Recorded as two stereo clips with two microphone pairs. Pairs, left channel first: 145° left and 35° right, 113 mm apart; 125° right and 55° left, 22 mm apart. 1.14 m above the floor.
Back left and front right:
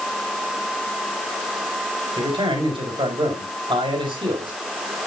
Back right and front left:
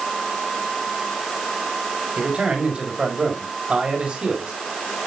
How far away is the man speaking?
About 4.5 m.